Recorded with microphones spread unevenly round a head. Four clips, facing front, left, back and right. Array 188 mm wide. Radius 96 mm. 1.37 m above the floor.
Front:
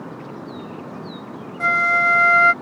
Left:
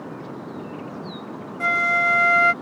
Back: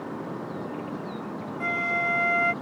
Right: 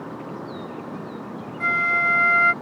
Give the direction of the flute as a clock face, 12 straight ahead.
11 o'clock.